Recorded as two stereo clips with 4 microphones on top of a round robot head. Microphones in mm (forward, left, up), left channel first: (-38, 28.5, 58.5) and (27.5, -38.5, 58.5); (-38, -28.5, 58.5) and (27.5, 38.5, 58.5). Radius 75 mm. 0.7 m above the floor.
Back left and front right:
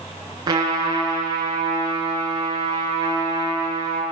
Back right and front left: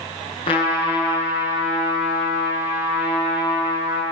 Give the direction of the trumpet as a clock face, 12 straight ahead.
3 o'clock.